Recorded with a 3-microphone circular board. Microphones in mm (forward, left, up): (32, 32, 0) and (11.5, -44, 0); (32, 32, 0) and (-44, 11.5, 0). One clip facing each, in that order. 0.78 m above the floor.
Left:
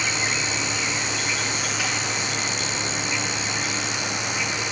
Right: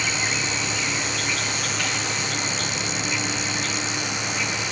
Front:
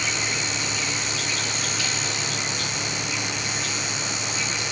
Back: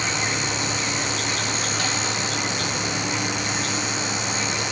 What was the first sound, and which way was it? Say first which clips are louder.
An insect: even, back 3 dB; 155° left.